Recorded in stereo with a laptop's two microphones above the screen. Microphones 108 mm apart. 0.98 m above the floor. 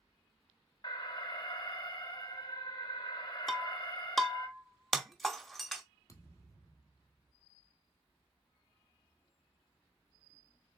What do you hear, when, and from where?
0.8 s an alarm: 40° left (ahead or behind), 0.8 m
3.5 s breaking glass: centre (ahead or behind), 0.7 m
6.1 s a thud: 30° left (ahead or behind), 1.1 m